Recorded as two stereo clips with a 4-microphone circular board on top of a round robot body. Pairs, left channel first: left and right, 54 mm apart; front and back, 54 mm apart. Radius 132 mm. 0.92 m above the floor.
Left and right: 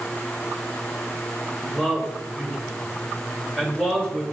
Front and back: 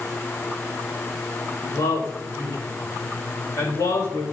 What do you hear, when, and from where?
1.6 s a man speaking: 10° left, 5 m